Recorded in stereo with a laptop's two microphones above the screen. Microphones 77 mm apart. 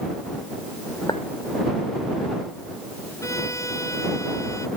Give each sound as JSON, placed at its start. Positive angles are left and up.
{"t": 1.1, "sound": "a clink", "side_deg": 80}
{"t": 3.2, "sound": "a violin", "side_deg": 45}